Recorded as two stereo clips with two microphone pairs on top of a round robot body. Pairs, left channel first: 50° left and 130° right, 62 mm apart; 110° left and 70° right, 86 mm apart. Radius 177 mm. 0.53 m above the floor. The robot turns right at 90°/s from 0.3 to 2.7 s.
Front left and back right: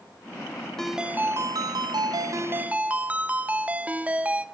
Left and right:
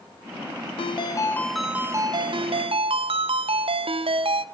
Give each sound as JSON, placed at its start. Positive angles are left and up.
{"t": 0.8, "sound": "a ringtone", "azimuth_deg": 130, "distance_m": 0.5}